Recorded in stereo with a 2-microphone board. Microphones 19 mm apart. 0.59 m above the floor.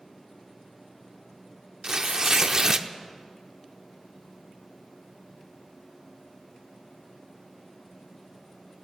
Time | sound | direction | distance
1.8 | tearing paper | 40° right (ahead or behind) | 0.6 m